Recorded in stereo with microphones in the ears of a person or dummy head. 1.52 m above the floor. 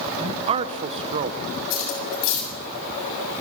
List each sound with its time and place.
0.2 s a man speaking: 35° right (ahead or behind), 0.9 m
1.7 s cutlery clinking: 80° left, 6.5 m